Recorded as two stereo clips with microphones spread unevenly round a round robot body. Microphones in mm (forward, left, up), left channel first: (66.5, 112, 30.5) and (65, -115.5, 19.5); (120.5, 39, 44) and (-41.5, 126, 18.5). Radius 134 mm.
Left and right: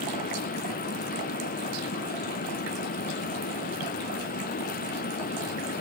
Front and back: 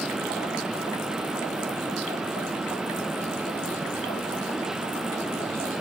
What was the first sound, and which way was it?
Only background noise.